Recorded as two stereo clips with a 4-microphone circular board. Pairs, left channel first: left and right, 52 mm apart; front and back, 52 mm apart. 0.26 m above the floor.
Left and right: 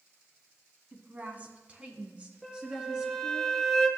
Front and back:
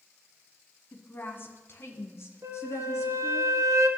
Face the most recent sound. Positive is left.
turn(degrees=175)